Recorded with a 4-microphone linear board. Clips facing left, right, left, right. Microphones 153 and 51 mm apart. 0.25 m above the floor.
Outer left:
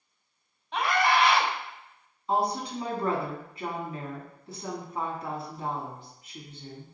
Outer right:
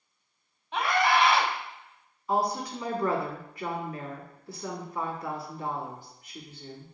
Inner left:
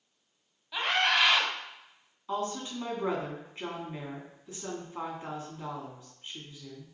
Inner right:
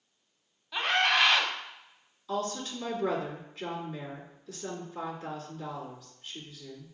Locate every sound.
0.7 s a scream: centre (ahead or behind), 1.1 m
2.3 s a woman speaking: 25° left (ahead or behind), 2.0 m